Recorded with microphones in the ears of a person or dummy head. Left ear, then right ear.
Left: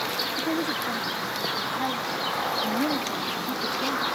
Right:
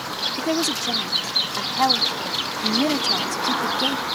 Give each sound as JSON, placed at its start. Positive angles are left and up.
{"t": 0.4, "sound": "a woman speaking", "side_deg": -55}